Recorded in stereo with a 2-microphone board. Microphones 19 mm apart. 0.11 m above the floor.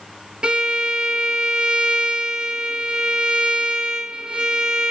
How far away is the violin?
About 0.5 m.